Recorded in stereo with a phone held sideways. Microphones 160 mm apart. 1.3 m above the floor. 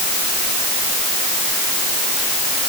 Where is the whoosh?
I don't hear a whoosh.